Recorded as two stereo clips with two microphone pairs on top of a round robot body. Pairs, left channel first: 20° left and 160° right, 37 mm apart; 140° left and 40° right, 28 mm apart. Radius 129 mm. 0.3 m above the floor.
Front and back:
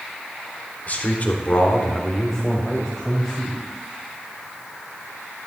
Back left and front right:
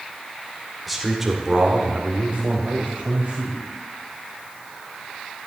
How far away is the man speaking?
About 2 m.